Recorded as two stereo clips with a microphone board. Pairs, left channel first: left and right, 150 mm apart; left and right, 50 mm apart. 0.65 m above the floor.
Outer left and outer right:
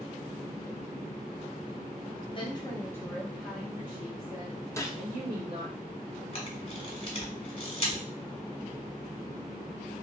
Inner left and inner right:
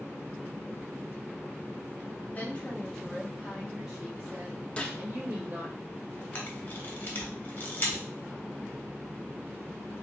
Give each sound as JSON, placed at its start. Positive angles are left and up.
{"t": 2.4, "sound": "a woman speaking", "side_deg": 35, "distance_m": 0.8}
{"t": 4.8, "sound": "a gunshot", "side_deg": 20, "distance_m": 0.5}
{"t": 6.3, "sound": "a camera shutter", "side_deg": 40, "distance_m": 1.2}